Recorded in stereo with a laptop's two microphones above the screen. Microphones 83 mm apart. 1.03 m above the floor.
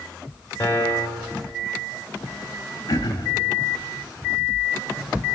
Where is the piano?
30° left (ahead or behind), 3.5 m.